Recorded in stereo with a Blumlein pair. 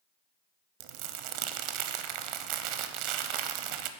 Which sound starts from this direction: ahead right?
Crumpling, at 0.8 s.